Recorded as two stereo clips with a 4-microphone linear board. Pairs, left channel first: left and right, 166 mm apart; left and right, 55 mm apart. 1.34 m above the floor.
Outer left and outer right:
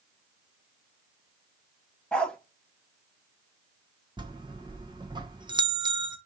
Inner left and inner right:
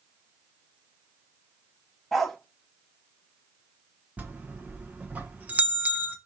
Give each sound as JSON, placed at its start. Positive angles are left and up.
{"t": 2.1, "sound": "a dog barking", "side_deg": 5, "distance_m": 1.3}
{"t": 4.2, "sound": "a bell", "side_deg": -25, "distance_m": 1.2}